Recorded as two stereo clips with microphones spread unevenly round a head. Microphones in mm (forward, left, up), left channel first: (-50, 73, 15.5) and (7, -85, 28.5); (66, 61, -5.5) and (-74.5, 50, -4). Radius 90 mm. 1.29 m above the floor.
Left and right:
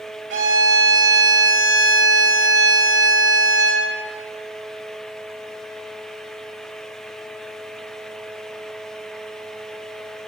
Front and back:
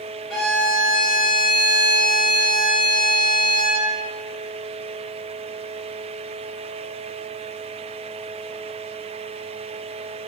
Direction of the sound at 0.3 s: 85° right.